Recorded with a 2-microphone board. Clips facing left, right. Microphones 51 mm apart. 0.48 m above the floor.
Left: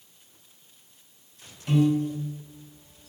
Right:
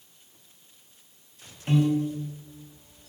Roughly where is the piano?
Right.